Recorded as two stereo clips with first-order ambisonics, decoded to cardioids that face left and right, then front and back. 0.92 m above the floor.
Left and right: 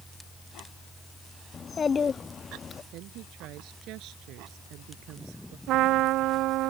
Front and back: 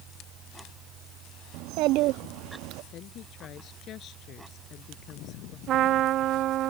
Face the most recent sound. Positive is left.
turn(degrees=-130)